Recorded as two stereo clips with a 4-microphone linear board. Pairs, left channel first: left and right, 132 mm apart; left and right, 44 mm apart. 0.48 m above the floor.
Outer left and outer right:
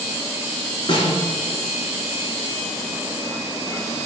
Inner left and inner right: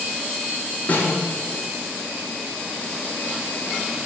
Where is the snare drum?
35° left (ahead or behind), 4.5 m.